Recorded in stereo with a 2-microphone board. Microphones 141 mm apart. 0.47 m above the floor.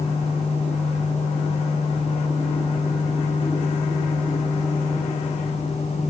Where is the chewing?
I don't hear chewing.